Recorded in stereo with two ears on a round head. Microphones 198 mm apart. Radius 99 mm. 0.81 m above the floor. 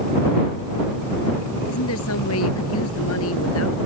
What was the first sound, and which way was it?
A woman speaking, 70° left (ahead or behind).